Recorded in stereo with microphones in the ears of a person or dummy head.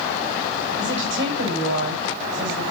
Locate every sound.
0.8 s a woman speaking: 60° right (ahead or behind), 7.5 m